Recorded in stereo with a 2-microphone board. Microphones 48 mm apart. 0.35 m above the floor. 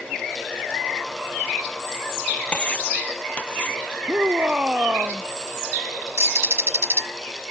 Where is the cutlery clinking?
25° left (ahead or behind).